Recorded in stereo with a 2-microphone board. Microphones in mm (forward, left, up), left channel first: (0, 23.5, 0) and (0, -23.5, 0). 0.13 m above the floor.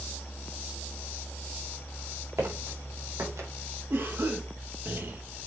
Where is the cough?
55° right (ahead or behind), 3 m.